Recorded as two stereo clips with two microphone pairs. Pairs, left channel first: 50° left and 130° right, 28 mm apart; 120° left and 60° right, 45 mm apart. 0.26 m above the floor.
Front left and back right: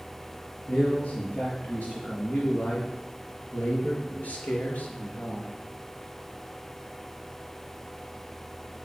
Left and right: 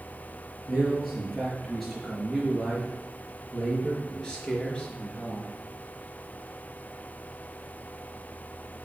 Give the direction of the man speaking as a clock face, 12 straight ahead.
11 o'clock.